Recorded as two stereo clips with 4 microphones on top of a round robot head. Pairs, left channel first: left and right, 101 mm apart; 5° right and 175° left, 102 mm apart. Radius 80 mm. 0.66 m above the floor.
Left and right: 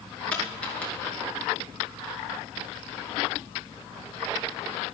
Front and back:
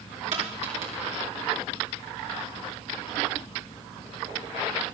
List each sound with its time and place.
0.3 s a dropped coin: 165° left, 5.5 m